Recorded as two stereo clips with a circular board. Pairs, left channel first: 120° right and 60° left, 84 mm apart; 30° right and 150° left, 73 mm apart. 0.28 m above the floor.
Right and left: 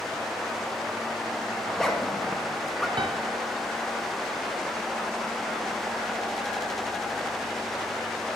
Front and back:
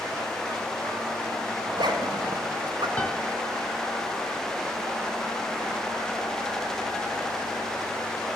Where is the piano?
40° left, 0.8 m.